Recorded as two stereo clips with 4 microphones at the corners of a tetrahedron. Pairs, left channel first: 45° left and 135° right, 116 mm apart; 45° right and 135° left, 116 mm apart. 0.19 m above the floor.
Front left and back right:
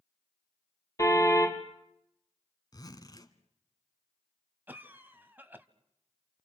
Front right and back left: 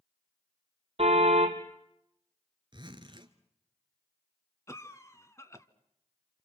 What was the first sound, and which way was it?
A car horn, 105° left.